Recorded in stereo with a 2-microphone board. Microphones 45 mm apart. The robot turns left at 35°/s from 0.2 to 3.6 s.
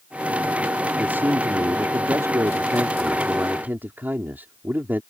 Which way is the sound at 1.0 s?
40° right.